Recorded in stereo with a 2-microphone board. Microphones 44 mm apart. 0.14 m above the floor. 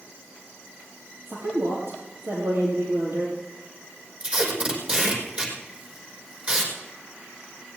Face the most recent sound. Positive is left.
turn(degrees=-30)  # may be behind; listen again after turning